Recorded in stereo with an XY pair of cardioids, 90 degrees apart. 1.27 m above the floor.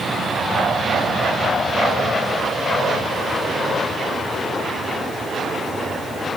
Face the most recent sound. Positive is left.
No sound to turn to.